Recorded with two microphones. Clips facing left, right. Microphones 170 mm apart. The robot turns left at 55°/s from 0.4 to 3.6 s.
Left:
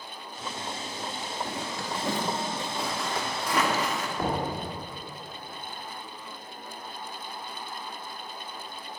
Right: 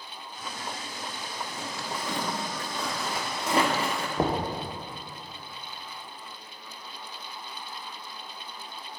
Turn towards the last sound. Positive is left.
turn(degrees=-35)  # may be behind; listen again after turning